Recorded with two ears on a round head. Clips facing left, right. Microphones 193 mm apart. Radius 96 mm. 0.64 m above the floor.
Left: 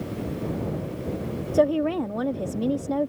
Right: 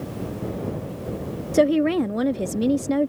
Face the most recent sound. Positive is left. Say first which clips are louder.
# right 3 dB
turn(degrees=-30)  # may be behind; listen again after turning